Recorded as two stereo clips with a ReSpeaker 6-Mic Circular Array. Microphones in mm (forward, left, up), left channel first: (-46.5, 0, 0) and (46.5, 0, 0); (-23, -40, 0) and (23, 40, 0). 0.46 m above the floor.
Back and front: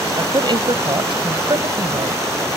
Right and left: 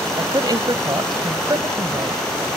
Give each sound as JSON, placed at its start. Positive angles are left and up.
{"t": 0.2, "sound": "a woman speaking", "azimuth_deg": 20}